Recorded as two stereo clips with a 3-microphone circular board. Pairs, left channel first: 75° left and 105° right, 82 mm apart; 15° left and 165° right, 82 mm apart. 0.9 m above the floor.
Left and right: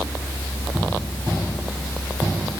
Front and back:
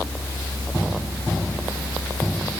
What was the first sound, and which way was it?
Only background noise.